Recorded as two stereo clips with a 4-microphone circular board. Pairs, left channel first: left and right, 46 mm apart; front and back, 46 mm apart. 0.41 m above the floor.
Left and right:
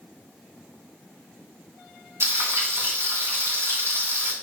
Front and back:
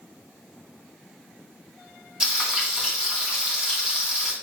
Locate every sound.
2.2 s frying: 110° right, 3 m